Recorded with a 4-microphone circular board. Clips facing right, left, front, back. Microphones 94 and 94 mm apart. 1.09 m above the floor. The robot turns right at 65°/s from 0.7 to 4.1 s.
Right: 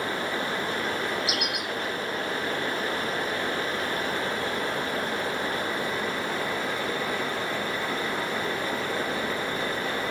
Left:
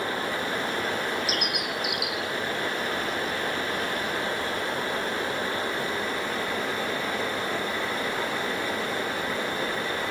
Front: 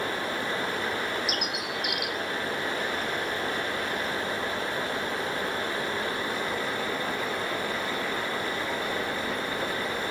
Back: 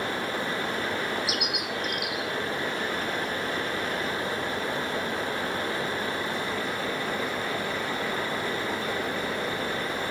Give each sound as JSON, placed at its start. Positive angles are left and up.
{"t": 1.3, "sound": "a bird", "azimuth_deg": 40}